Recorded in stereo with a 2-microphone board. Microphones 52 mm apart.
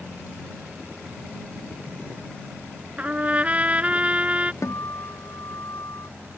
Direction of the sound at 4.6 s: 80° left.